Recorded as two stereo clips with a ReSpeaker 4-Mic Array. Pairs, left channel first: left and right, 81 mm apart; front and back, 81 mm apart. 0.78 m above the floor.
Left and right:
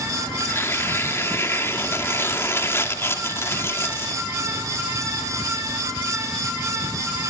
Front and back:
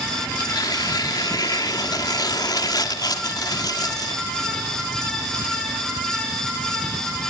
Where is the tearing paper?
35° left, 2 m.